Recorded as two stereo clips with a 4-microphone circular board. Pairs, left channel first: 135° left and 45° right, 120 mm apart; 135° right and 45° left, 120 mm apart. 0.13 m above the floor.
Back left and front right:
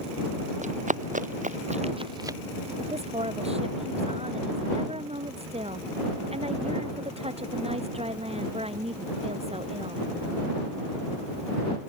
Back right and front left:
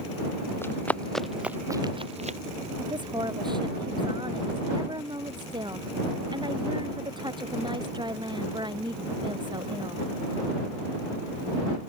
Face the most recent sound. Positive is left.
turn(degrees=-10)